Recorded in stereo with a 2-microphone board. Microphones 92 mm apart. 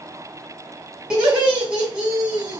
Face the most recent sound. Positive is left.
turn(degrees=-10)  # may be behind; listen again after turning